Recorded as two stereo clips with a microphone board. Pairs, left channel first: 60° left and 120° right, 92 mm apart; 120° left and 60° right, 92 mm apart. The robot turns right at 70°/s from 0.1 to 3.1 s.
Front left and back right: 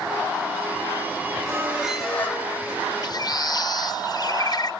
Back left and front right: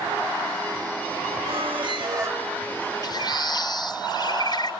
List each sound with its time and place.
1.4 s a squeak: 70° right, 3 m; by 2.4 s straight ahead, 3 m
3.0 s a bird: 85° left, 0.7 m; by 4.7 s 90° left, 0.7 m